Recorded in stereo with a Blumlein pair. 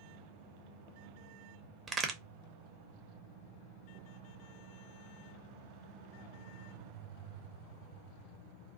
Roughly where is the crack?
Ahead.